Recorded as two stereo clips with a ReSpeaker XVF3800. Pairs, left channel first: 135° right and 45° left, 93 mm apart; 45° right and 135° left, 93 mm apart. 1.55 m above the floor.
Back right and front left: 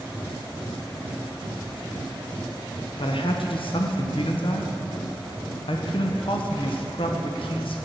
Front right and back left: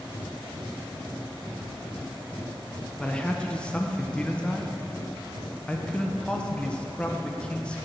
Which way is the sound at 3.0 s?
125° right.